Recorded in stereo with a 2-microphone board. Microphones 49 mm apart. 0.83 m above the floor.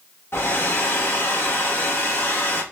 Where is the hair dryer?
50° left (ahead or behind), 1.6 m.